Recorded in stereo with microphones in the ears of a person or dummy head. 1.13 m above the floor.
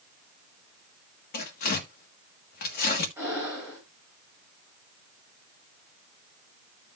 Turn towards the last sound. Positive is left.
turn(degrees=-10)  # may be behind; listen again after turning